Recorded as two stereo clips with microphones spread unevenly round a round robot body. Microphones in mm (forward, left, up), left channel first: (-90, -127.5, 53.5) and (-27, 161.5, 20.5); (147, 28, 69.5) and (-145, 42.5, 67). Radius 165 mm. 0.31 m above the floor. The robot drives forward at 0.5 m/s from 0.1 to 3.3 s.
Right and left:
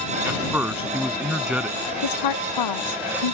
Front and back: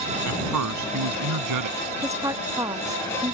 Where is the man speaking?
160° left; by 1.8 s 165° left.